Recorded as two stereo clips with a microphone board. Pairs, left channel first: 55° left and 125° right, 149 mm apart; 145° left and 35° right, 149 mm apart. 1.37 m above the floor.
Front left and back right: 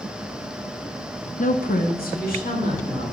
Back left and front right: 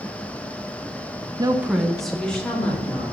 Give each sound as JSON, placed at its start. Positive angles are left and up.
{"t": 1.4, "sound": "a woman speaking", "azimuth_deg": 25, "distance_m": 0.6}